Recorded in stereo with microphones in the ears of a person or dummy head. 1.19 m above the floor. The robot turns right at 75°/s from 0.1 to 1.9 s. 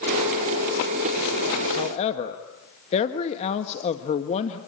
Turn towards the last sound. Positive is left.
turn(degrees=30)  # may be behind; listen again after turning